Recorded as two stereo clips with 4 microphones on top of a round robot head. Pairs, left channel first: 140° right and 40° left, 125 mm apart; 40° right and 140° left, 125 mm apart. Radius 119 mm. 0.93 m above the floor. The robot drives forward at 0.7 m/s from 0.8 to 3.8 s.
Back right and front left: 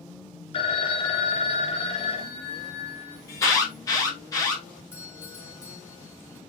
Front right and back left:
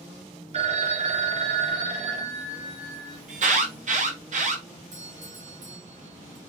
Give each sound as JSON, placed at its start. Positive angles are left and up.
{"t": 0.5, "sound": "a phone ringing", "azimuth_deg": 175, "distance_m": 1.3}
{"t": 3.3, "sound": "an alarm", "azimuth_deg": 155, "distance_m": 4.5}
{"t": 4.9, "sound": "a doorbell", "azimuth_deg": 150, "distance_m": 5.5}